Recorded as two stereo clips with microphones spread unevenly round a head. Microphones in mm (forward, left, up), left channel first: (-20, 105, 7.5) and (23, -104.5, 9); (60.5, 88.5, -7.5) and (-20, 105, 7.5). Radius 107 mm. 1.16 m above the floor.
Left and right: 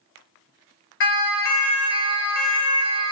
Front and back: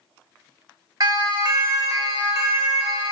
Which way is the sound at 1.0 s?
130° left.